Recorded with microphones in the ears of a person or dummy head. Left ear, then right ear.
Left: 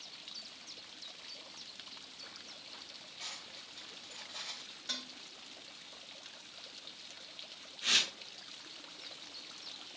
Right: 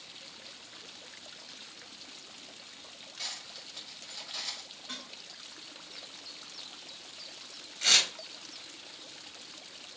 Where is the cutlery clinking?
40° right (ahead or behind), 4.5 m.